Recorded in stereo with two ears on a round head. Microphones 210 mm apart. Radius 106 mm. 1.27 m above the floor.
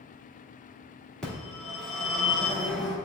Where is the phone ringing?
Centre (ahead or behind), 2 m.